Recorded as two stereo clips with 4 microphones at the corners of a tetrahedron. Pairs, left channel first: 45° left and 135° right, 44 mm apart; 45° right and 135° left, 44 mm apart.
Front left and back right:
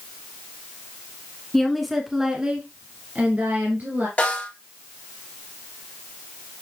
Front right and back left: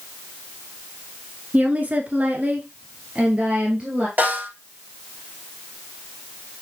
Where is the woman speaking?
120° left, 1.4 m; by 4.1 s 165° right, 2 m.